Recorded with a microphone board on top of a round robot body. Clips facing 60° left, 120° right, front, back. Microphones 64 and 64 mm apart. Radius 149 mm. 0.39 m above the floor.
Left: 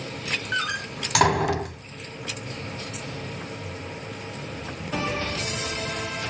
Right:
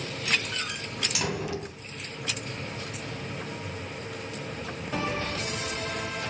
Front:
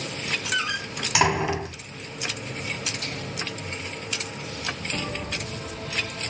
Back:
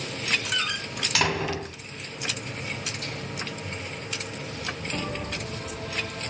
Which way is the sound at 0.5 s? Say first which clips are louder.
Left 7 dB, front 2 dB; 70° left.